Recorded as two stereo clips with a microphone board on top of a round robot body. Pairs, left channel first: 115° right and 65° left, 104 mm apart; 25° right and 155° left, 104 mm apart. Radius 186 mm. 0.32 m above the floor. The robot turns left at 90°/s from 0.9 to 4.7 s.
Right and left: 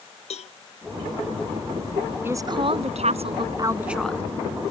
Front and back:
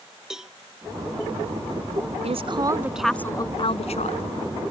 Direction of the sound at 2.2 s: 140° left.